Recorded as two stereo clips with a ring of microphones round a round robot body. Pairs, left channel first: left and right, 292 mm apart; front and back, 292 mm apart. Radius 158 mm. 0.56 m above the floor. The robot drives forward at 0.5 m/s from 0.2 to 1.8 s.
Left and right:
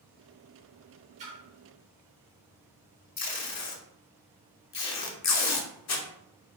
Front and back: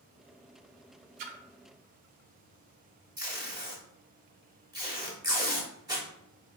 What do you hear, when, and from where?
1.2 s a splash: 160° right, 0.6 m; by 1.4 s 165° right, 0.7 m
3.2 s tape being pulled: 105° left, 0.6 m